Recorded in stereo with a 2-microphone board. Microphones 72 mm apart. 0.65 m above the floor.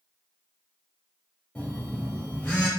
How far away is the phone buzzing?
About 1.1 m.